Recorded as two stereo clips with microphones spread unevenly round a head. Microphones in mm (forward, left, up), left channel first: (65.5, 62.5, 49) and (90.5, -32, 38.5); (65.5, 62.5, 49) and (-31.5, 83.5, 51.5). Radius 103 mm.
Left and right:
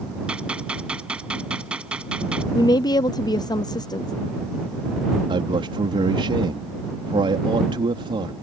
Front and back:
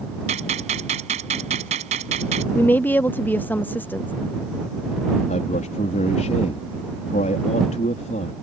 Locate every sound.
0.3 s a gunshot: 165° right
2.5 s a woman speaking: 60° left
5.3 s a man speaking: 40° right